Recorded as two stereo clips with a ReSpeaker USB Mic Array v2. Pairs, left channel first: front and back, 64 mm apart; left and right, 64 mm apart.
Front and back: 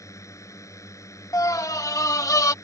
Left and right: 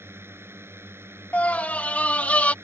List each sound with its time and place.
0.0 s a drone: 40° right
1.3 s a scream: 25° left